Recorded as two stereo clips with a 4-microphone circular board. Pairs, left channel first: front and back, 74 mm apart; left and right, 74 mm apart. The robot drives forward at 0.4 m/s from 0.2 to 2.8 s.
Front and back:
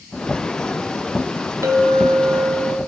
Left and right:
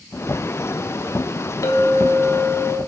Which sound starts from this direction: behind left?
A clink, at 1.6 s.